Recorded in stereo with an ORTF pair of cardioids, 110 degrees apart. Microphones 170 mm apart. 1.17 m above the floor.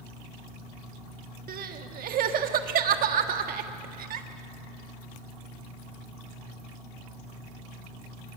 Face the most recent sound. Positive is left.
turn(degrees=-60)